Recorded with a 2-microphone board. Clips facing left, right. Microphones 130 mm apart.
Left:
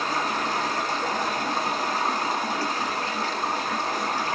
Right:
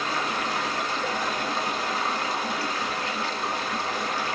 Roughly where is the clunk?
I don't hear a clunk.